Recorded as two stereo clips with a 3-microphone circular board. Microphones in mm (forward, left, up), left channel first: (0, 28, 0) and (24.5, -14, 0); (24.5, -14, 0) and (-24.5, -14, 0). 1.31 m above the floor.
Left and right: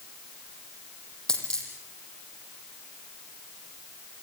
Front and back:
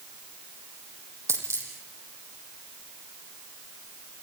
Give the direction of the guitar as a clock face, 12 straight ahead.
No guitar in this recording.